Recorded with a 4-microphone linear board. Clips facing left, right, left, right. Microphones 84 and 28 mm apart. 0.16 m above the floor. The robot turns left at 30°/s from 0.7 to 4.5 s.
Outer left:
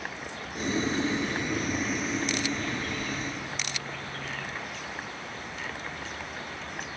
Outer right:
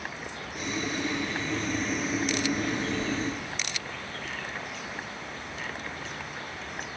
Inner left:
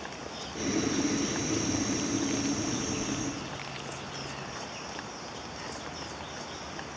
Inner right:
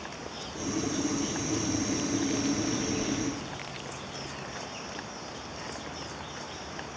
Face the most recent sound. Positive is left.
turn(degrees=-75)